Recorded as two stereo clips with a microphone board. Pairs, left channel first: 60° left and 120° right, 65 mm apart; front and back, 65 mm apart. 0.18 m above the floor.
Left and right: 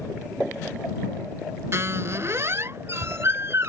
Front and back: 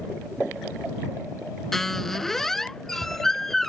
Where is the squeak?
85° right.